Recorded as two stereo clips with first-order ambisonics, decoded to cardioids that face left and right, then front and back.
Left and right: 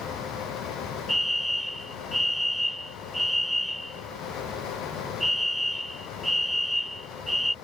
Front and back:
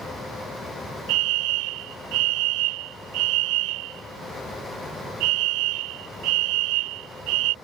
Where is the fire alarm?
Straight behind.